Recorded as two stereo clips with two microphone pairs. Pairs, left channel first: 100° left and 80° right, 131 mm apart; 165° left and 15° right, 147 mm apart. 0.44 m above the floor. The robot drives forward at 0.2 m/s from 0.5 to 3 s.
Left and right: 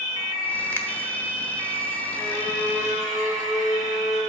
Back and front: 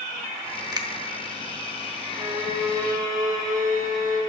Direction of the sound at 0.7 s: 35° left.